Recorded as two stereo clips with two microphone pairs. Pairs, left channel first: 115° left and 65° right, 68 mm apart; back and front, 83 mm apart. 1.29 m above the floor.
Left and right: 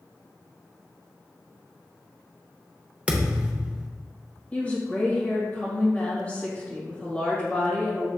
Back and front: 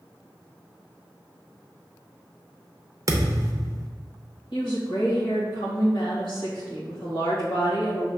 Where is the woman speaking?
175° right, 1.6 m.